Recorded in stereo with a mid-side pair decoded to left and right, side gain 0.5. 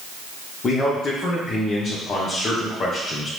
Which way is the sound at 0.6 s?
35° left.